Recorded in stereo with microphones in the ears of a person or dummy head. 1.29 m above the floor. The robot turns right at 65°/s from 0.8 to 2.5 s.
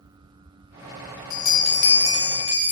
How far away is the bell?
About 0.7 m.